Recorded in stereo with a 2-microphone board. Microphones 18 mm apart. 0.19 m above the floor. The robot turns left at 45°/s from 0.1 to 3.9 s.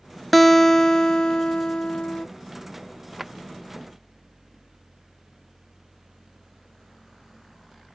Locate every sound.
0.3 s a guitar: 175° left; by 2.3 s 85° left
3.2 s a drawer: 10° right (ahead or behind); by 3.3 s 5° right (ahead or behind)